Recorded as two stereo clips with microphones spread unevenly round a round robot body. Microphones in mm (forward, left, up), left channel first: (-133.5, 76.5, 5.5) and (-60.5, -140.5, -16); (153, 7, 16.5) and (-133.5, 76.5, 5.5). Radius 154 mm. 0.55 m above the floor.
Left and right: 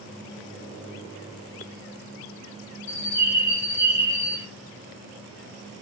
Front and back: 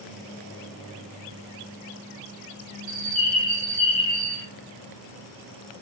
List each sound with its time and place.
2.9 s a bird: 65° left, 1.4 m